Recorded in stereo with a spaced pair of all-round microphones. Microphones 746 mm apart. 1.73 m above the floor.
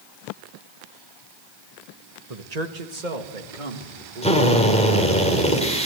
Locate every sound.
2.3 s a man speaking: 50° right (ahead or behind), 1.8 m; by 5.2 s 85° right, 5.5 m
4.2 s a drill: 10° left (ahead or behind), 4.5 m